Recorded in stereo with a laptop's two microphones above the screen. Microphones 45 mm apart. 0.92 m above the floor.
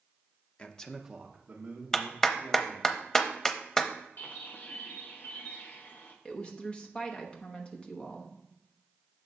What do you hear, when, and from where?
0.6 s a man speaking: 30° left (ahead or behind), 0.7 m; by 2.9 s 50° right (ahead or behind), 2.5 m
1.9 s a clap: 15° left (ahead or behind), 0.7 m
4.2 s a bird: 40° left (ahead or behind), 0.7 m
6.2 s a woman speaking: 20° left (ahead or behind), 0.9 m